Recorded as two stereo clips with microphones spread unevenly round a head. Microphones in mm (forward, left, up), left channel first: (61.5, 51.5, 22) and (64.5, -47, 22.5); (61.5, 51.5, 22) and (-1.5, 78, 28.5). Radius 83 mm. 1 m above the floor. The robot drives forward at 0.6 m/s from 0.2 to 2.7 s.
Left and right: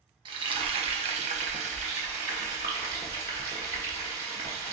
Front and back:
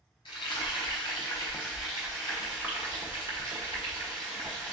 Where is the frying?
50° right, 1.0 m; by 4.7 s 140° right, 1.1 m.